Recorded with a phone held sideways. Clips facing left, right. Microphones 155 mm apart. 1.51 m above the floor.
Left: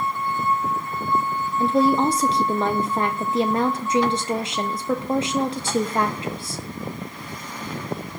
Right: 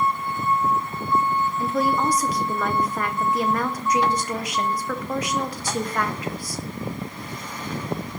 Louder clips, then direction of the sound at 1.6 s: Left 7 dB; 25° left (ahead or behind).